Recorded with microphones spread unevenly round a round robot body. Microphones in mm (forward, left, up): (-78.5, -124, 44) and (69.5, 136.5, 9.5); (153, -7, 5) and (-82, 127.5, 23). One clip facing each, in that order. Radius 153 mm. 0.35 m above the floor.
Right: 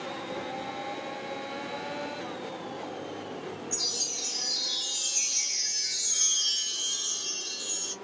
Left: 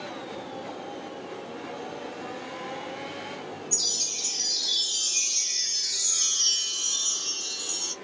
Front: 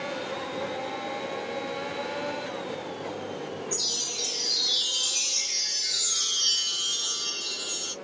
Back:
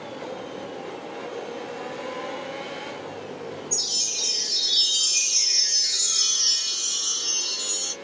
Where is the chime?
85° left, 1.3 m.